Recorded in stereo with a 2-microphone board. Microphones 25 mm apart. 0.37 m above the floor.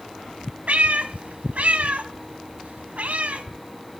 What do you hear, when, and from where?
0.7 s a cat meowing: 75° right (ahead or behind), 0.6 m